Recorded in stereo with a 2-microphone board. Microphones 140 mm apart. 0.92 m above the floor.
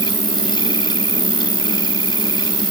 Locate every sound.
0.0 s an insect: 30° right (ahead or behind)